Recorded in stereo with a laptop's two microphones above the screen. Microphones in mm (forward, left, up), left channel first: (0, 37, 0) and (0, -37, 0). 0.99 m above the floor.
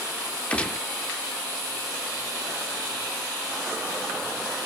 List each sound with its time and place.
0.5 s a gunshot: 15° left (ahead or behind), 0.7 m